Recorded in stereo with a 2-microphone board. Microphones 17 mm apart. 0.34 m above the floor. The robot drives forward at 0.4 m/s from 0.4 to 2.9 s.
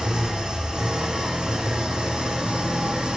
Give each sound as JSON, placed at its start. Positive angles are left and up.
{"t": 0.0, "sound": "an engine running", "side_deg": -55, "distance_m": 3.5}